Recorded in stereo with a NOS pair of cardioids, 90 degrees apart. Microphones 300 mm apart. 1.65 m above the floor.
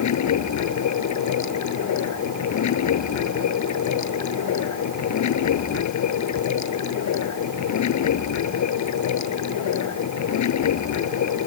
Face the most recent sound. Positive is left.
turn(degrees=70)